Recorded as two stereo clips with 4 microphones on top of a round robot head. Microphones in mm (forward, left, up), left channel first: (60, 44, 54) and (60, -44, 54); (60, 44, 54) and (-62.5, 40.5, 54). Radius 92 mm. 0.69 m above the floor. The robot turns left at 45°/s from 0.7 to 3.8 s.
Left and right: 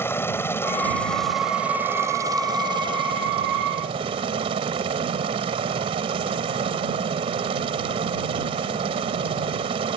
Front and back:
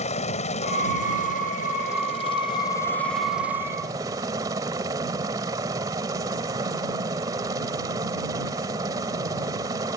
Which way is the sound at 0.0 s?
25° left.